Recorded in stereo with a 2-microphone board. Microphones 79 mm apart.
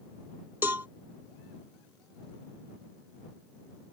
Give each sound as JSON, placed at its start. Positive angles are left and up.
{"t": 0.6, "sound": "a cowbell", "side_deg": -25}